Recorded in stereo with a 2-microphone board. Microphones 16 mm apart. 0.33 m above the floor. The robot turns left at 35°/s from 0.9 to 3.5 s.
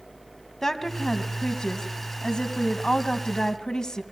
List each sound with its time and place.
0.6 s a woman speaking: 150° left, 2.5 m; by 4.0 s 60° left, 2.5 m